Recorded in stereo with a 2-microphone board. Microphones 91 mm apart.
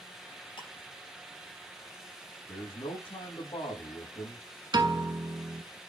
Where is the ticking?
65° left (ahead or behind), 6 m.